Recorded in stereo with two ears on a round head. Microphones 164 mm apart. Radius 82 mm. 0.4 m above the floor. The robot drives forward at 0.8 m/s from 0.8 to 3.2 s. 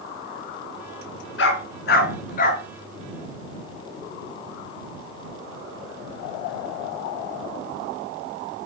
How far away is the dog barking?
About 1.5 m.